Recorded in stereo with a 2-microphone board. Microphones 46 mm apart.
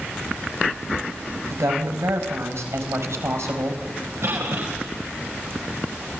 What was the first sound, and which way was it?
A woman speaking, 75° right (ahead or behind).